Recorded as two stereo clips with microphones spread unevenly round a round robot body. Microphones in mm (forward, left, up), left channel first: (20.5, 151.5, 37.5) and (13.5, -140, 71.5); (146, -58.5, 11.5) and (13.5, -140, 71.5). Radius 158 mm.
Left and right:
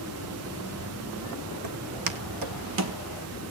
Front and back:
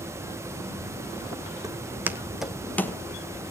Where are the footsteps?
90° right, 1.7 m; by 3.0 s 50° right, 1.3 m.